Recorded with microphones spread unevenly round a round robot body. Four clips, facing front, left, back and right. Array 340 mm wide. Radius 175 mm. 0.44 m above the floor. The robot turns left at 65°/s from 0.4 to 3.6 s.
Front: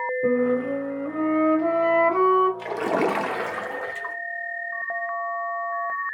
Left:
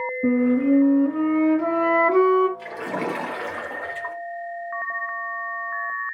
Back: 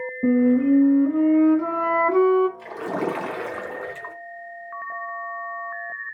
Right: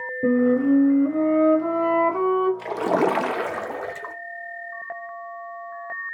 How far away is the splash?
About 0.6 m.